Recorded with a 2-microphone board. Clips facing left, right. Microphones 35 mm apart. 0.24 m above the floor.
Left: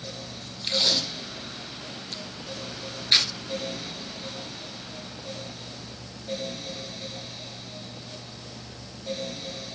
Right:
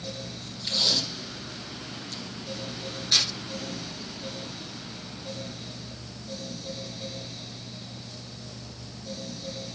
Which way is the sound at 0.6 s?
40° left (ahead or behind).